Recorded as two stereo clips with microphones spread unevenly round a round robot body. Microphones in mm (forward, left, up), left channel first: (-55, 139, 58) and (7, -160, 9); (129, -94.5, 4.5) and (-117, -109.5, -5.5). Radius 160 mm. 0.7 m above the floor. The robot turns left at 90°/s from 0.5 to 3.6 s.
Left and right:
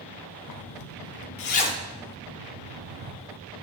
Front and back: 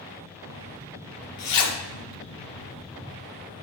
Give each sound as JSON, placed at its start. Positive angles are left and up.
{"t": 0.5, "sound": "a zipper", "azimuth_deg": 130, "distance_m": 0.5}